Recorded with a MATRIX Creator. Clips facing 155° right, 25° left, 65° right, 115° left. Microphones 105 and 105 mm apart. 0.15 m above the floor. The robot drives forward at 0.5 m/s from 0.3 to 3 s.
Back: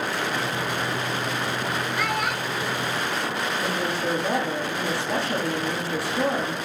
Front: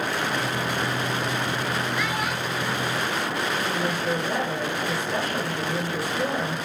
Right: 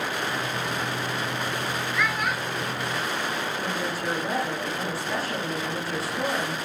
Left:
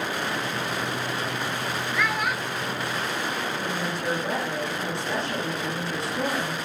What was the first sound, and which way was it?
A child speaking, 155° right.